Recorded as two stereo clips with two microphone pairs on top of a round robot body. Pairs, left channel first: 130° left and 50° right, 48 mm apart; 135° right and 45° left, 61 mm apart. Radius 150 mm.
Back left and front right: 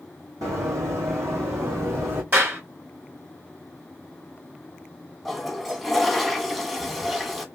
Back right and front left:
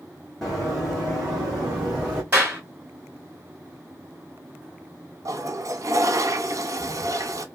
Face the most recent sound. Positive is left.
turn(degrees=30)